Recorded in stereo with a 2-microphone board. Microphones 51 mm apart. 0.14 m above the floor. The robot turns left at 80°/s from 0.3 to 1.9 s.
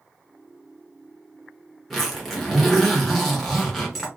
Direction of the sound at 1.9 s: 5° left (ahead or behind).